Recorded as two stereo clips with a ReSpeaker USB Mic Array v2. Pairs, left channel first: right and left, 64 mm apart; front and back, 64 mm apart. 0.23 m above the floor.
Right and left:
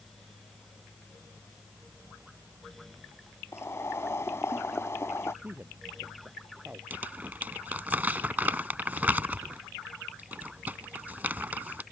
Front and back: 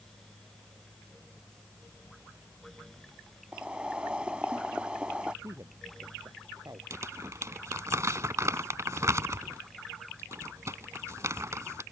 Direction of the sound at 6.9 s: 150° left.